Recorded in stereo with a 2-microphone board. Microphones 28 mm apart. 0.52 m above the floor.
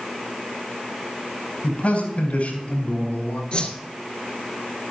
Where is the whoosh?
40° left (ahead or behind), 2.5 m.